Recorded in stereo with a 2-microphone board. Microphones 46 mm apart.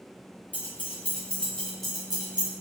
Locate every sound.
0.5 s keys jangling: 40° left (ahead or behind), 1.3 m; by 2.5 s 25° right (ahead or behind), 0.9 m